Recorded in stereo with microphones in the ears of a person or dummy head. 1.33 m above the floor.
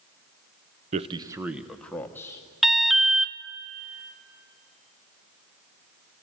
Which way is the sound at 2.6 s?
Centre (ahead or behind).